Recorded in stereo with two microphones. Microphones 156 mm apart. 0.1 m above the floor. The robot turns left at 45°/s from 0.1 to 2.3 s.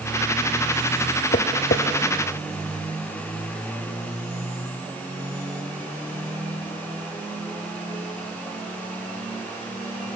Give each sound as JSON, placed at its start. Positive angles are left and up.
{"t": 1.3, "sound": "tapping", "side_deg": 65, "distance_m": 1.8}